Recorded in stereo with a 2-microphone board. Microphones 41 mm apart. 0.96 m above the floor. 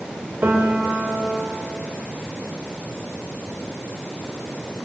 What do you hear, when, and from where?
0.4 s a piano: 55° right (ahead or behind), 4.5 m